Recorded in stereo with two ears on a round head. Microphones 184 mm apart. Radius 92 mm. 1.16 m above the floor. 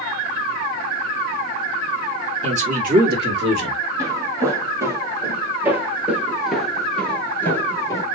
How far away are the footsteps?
About 2 m.